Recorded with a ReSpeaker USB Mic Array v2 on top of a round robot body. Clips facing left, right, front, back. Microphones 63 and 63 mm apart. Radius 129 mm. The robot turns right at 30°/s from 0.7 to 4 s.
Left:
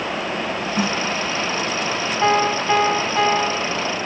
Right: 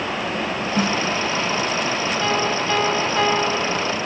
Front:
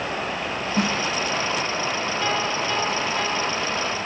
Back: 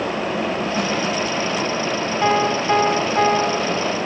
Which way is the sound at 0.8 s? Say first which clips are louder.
Right 1 dB, front 3 dB; 50° right.